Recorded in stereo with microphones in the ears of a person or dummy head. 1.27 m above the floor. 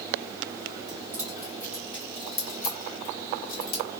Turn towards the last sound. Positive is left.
turn(degrees=80)